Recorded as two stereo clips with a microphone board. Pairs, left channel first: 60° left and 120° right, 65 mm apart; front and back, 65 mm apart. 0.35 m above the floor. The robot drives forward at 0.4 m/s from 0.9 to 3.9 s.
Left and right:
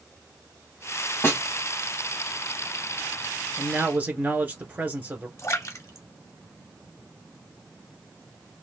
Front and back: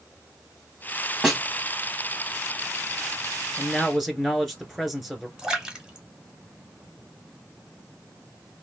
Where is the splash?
105° left, 0.8 m.